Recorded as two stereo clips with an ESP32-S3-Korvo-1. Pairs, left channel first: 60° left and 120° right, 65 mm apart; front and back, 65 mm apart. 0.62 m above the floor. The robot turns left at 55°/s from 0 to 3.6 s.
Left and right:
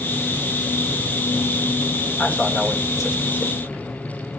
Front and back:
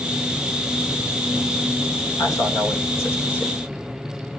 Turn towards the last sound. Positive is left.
turn(degrees=-75)